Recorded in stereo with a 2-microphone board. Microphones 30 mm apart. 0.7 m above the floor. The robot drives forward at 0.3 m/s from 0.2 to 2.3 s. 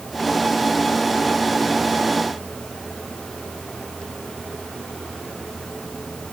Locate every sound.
Only background noise.